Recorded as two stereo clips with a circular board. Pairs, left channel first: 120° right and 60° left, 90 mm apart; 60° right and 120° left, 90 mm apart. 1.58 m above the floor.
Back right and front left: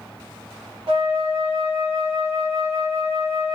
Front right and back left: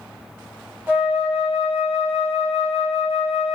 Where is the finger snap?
I don't hear a finger snap.